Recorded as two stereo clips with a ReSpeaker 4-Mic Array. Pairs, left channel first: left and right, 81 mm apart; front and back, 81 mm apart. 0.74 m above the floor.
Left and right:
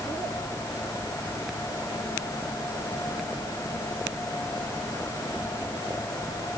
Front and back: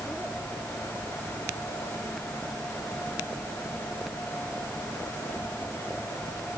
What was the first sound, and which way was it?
Only background noise.